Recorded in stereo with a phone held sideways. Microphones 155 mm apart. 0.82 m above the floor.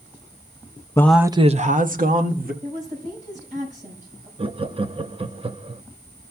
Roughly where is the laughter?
Right.